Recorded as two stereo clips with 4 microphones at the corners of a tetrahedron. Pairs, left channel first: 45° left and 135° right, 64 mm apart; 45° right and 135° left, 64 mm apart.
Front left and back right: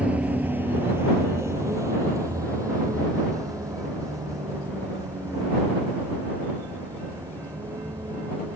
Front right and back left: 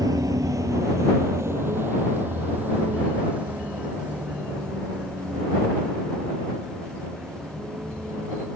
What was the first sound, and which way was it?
A vehicle, 155° left.